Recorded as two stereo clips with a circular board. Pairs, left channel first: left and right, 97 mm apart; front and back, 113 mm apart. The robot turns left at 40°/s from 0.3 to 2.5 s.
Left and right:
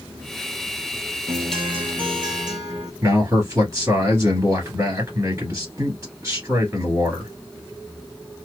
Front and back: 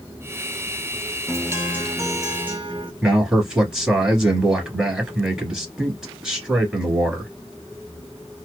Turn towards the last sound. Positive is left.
turn(degrees=-105)